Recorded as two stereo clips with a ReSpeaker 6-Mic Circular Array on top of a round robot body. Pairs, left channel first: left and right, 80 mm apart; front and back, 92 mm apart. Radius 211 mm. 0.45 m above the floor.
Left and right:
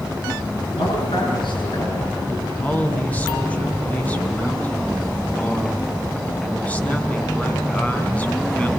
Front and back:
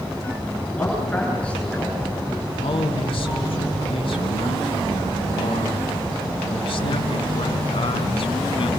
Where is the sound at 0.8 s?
80° left, 7.5 m.